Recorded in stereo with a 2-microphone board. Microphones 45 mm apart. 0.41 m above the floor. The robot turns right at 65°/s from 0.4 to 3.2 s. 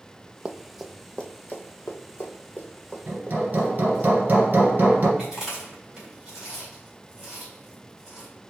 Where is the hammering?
40° right (ahead or behind), 1.5 m; by 5.1 s 45° right (ahead or behind), 1.5 m.